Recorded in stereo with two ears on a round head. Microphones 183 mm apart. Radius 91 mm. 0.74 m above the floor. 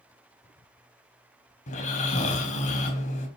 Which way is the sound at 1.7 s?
35° left (ahead or behind).